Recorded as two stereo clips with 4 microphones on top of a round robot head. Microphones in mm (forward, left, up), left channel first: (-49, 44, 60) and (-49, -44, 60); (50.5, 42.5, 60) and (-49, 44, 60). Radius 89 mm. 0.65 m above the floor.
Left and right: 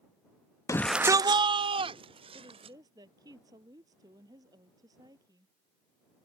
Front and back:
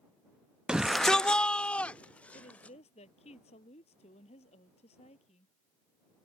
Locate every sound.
0.7 s a shout: 100° left; by 2.8 s 80° right
2.3 s a woman speaking: 30° right